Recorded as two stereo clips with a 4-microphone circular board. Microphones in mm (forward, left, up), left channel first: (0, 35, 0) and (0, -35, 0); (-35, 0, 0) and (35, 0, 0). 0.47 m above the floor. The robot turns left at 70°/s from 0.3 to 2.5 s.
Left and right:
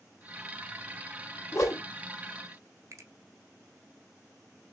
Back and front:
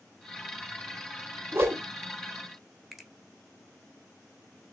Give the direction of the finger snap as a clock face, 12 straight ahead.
3 o'clock.